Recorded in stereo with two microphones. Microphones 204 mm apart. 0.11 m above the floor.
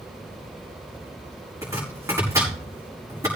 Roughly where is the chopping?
Centre.